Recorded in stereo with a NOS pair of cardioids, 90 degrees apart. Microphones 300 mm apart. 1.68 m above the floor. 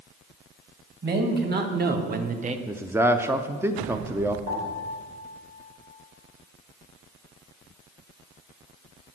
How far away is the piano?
About 4 m.